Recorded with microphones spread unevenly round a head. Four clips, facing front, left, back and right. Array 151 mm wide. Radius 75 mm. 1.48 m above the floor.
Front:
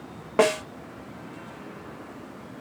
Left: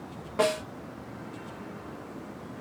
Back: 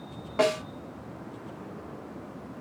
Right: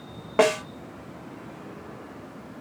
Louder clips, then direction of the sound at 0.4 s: Right 5 dB, front 4 dB; 40° right.